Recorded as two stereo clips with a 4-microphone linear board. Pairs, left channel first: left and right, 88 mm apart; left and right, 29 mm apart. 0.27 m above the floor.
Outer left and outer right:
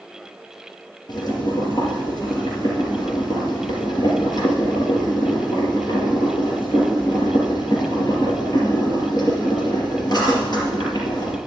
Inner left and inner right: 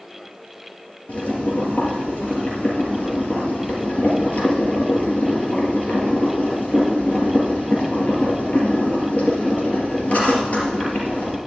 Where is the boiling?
50° left (ahead or behind), 3.5 m.